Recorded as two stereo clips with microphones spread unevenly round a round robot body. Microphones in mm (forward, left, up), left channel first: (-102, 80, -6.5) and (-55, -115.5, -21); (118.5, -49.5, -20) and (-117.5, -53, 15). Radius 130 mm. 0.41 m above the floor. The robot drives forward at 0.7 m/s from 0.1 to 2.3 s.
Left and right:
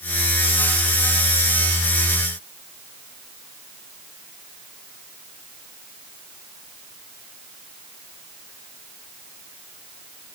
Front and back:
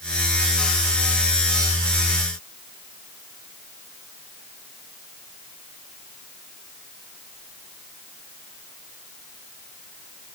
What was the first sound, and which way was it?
Only background noise.